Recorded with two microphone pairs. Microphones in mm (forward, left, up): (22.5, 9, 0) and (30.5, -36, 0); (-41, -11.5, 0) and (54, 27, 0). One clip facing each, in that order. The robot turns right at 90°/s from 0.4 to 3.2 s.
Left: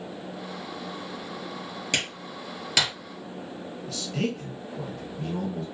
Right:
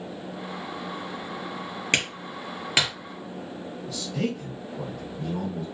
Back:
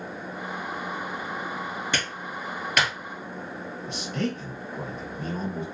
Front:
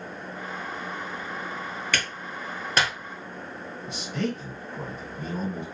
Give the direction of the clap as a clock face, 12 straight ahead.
3 o'clock.